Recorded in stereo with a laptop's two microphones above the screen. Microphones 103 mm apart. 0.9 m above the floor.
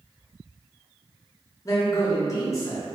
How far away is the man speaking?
About 0.6 m.